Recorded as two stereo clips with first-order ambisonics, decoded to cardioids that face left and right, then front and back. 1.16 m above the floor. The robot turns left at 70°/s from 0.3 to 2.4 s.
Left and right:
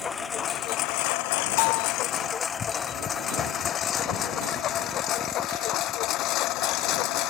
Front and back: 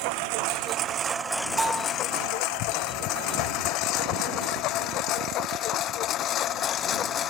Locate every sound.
0.0 s a lawn mower: 160° left; by 7.3 s 55° left
1.6 s a bell: 105° left; by 1.9 s 80° left